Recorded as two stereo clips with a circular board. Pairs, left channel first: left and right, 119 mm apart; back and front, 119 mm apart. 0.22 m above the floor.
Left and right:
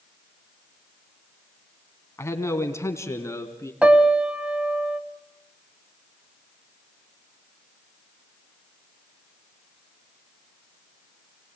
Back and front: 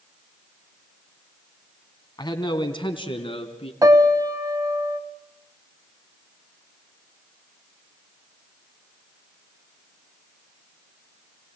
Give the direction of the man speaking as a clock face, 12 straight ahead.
7 o'clock.